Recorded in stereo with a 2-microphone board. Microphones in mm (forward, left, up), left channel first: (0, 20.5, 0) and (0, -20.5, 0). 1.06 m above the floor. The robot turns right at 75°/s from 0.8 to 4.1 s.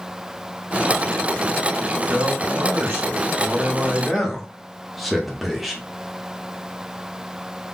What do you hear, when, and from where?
2.1 s a man speaking: 155° right, 1.3 m; by 5.8 s 5° right, 1.3 m